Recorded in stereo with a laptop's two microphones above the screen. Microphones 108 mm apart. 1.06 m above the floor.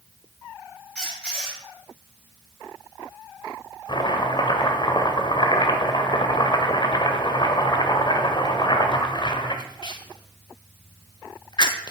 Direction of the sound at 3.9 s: 45° left (ahead or behind).